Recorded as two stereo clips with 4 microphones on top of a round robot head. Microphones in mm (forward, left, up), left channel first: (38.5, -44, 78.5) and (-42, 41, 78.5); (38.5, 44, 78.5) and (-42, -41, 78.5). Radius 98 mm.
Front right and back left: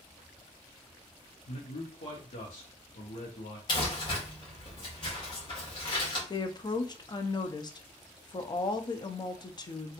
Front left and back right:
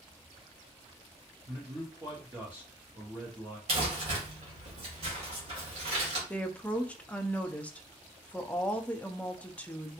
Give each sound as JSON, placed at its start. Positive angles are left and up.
{"t": 1.5, "sound": "a man speaking", "azimuth_deg": -60, "distance_m": 0.9}
{"t": 3.7, "sound": "crumpling", "azimuth_deg": -100, "distance_m": 1.6}
{"t": 6.3, "sound": "a woman speaking", "azimuth_deg": -25, "distance_m": 0.5}